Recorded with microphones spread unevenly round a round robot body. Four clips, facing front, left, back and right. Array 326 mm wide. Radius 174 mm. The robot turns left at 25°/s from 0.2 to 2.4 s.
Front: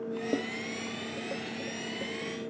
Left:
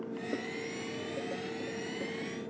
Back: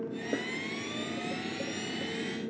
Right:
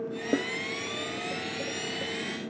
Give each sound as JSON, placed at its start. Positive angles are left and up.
{"t": 0.3, "sound": "a snare drum", "azimuth_deg": -70}